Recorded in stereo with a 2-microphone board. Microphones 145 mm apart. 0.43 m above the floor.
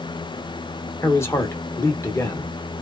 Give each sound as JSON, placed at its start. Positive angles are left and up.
{"t": 1.0, "sound": "a man speaking", "side_deg": 20, "distance_m": 0.9}